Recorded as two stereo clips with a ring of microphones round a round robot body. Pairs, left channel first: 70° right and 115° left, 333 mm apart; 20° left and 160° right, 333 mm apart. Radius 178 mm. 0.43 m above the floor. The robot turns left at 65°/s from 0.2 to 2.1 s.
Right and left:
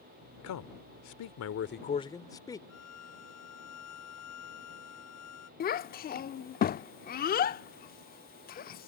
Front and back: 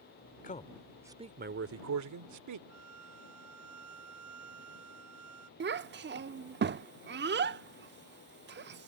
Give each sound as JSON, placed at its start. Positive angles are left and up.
{"t": 0.4, "sound": "a man speaking", "azimuth_deg": -35}
{"t": 2.7, "sound": "a violin", "azimuth_deg": -115}
{"t": 5.6, "sound": "a child speaking", "azimuth_deg": -115}